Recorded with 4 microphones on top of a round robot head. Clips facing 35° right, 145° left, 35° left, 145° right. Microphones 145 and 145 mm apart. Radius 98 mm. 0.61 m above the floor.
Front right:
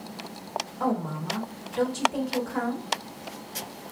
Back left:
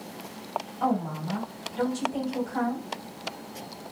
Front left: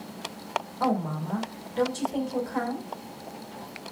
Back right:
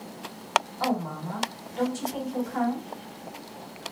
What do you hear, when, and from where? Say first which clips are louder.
0.8 s a woman speaking: back left 1 dB, front left 1 dB; 15° right, 2.5 m